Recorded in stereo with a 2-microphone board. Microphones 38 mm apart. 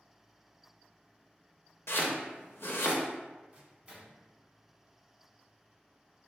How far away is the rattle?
No rattle in this recording.